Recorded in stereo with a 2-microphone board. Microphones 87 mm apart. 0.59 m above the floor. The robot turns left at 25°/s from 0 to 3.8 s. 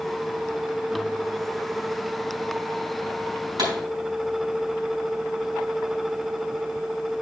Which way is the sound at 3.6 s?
50° right (ahead or behind).